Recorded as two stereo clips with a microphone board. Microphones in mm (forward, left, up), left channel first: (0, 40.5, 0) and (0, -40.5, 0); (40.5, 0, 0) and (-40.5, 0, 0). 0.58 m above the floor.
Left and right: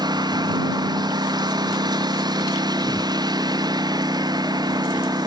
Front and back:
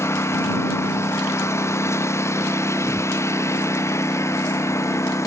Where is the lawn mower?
55° right.